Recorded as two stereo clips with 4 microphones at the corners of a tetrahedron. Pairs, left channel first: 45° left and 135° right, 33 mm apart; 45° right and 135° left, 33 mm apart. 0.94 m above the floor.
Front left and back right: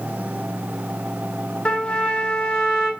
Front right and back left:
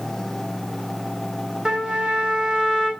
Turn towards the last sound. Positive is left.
turn(degrees=85)